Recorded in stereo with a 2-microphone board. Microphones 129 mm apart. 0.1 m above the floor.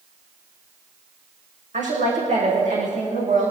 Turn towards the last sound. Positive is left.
turn(degrees=-75)  # may be behind; listen again after turning